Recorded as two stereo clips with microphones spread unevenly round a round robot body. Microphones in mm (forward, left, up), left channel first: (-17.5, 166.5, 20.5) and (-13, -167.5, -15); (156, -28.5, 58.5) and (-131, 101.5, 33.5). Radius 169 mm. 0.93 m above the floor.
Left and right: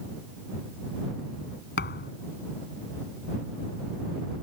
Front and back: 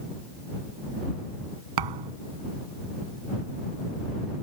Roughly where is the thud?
Behind left.